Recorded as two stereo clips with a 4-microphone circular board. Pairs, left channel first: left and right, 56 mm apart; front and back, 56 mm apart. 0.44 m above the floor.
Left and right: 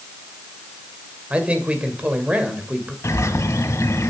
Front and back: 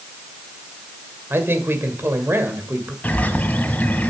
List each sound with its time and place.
1.3 s a man speaking: 150° right, 2.0 m
3.0 s a bird: 60° left, 1.2 m